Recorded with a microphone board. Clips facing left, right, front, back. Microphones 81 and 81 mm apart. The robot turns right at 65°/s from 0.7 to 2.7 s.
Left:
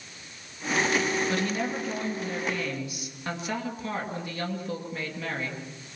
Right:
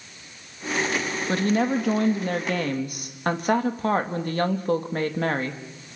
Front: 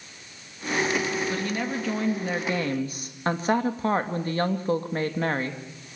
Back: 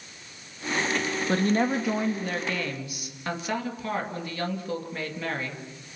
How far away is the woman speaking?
About 2.5 m.